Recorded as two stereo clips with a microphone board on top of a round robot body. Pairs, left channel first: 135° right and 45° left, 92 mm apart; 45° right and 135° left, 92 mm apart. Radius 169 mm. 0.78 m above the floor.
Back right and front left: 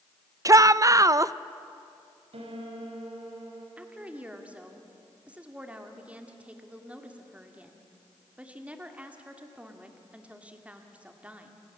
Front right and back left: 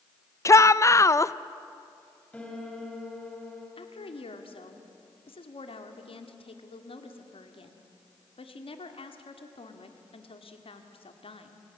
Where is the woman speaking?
35° right, 2 m.